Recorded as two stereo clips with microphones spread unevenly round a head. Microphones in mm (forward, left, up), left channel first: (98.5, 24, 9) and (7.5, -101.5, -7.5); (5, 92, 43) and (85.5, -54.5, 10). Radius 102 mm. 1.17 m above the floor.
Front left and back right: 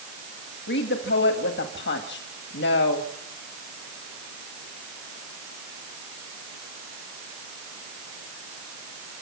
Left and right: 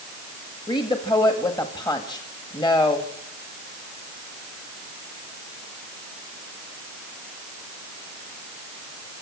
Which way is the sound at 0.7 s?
50° left.